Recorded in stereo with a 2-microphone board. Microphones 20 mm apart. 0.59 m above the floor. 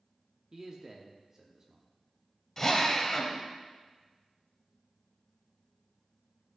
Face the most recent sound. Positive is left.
turn(degrees=15)  # may be behind; listen again after turning